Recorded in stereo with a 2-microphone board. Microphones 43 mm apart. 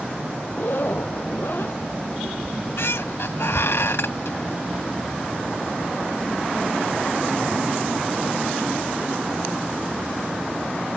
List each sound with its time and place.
0.5 s a zipper: 55° left (ahead or behind)
2.4 s a squeak: 80° left